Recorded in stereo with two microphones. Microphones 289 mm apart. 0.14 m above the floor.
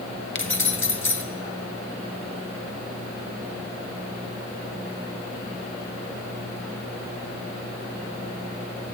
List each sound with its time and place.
0.3 s keys jangling: 45° left (ahead or behind), 1.4 m